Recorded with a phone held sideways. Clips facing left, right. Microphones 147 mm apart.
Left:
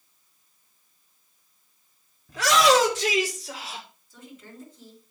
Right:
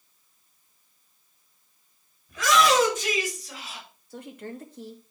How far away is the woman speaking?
About 2.5 m.